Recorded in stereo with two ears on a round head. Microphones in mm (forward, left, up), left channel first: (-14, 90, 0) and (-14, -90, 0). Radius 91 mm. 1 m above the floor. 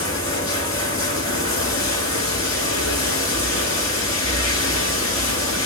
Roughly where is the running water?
Left.